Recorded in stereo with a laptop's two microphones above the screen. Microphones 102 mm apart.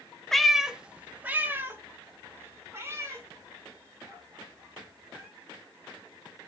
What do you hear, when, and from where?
0.3 s a cat meowing: 5° left (ahead or behind), 0.6 m; by 5.3 s 30° right (ahead or behind), 3.5 m